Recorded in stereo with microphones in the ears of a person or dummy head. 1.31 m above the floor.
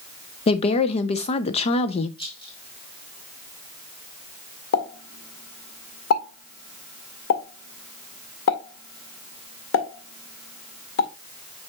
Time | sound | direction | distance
0.5 | a woman speaking | 30° left (ahead or behind) | 0.8 m
2.2 | a rattle | 30° left (ahead or behind) | 1.8 m
4.7 | a pop | 70° left (ahead or behind) | 1.8 m